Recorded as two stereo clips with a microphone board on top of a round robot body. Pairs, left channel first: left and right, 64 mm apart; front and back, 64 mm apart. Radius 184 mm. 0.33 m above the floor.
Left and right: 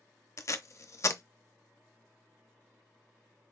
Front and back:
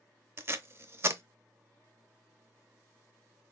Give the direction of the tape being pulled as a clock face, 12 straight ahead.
8 o'clock.